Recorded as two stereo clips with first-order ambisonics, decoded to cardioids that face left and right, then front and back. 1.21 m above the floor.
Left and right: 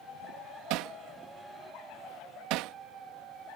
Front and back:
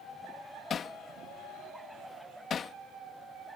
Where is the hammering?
65° right.